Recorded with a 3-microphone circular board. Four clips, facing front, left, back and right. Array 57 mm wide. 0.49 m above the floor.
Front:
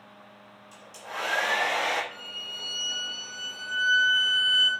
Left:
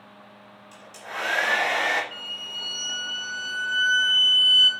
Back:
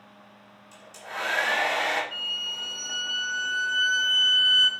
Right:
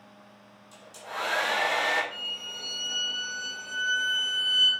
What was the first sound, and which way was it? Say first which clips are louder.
A hair dryer: left 2 dB, back 1 dB; 110° left.